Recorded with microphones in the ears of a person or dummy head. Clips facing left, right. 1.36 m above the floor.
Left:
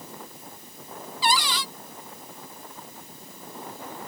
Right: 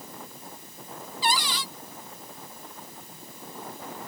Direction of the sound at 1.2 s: 50° left (ahead or behind).